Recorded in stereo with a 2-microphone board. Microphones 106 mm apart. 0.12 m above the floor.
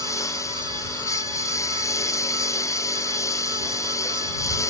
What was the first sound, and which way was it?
A lawn mower, 30° left (ahead or behind).